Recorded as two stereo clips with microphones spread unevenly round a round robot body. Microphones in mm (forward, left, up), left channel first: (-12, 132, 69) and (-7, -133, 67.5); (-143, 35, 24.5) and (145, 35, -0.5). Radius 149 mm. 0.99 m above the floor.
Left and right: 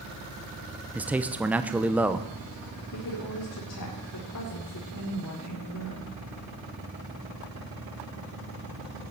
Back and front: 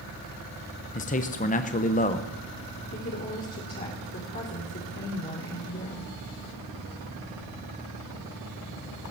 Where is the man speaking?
165° right, 0.8 m.